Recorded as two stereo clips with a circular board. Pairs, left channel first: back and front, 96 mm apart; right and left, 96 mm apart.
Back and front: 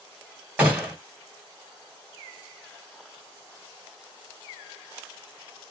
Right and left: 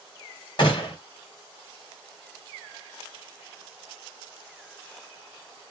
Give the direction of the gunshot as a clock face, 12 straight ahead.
2 o'clock.